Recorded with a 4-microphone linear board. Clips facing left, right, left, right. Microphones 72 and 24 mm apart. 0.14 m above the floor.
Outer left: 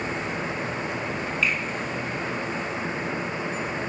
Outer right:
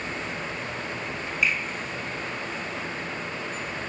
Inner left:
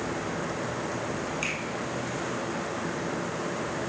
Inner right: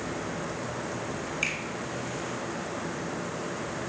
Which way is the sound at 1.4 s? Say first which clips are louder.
Outer right 1 dB, inner right 3 dB; 15° right (ahead or behind).